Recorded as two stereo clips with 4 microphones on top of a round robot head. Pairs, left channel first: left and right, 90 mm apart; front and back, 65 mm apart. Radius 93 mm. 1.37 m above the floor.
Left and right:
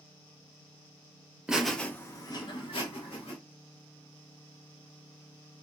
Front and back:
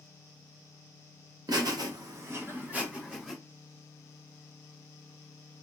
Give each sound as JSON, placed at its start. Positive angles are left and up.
{"t": 1.5, "sound": "laughter", "azimuth_deg": -170, "distance_m": 0.9}